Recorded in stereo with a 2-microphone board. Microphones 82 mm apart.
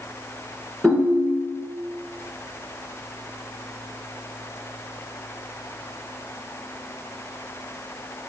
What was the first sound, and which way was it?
A ringtone, 5° right (ahead or behind).